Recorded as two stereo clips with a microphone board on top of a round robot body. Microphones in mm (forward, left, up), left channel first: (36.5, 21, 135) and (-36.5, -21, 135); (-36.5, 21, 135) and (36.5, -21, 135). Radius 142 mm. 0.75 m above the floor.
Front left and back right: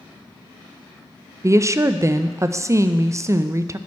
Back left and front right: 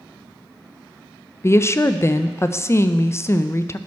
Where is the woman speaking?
175° right, 0.5 m.